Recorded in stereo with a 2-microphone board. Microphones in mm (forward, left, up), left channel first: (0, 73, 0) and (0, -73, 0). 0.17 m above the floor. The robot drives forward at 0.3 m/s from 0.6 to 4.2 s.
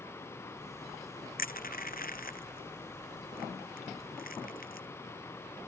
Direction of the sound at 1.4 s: 85° left.